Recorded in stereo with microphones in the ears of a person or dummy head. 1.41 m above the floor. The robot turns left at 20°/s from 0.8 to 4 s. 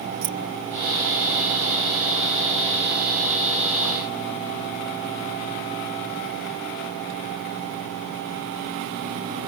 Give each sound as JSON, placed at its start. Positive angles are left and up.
{"t": 0.2, "sound": "keys jangling", "side_deg": -70}